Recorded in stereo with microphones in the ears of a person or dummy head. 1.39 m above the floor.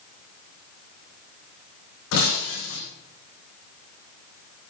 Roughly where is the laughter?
I don't hear laughter.